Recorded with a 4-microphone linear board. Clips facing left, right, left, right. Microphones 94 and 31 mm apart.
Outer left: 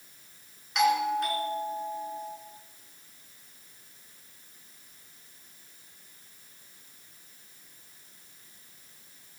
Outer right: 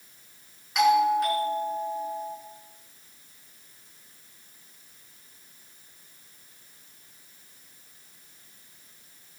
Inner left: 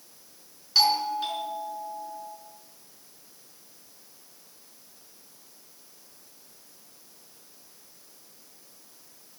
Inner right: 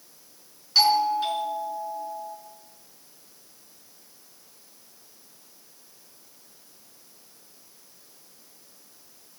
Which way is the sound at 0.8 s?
Centre (ahead or behind).